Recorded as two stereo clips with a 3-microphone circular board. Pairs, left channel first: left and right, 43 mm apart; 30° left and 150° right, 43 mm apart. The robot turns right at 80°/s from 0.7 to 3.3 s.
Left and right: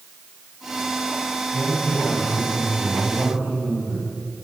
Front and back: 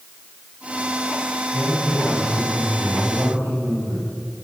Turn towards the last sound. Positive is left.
turn(degrees=-135)